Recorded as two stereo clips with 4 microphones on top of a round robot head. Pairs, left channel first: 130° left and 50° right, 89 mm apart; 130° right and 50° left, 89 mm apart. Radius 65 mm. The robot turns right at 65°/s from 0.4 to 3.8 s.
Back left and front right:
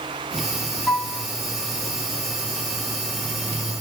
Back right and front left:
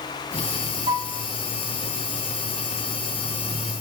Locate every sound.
0.9 s a piano: 60° left, 3 m; by 1.2 s 85° left, 3 m